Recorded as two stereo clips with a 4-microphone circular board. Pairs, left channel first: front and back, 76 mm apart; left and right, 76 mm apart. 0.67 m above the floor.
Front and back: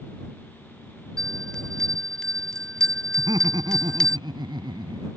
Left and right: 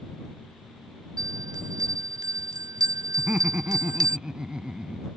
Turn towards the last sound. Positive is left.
turn(degrees=-170)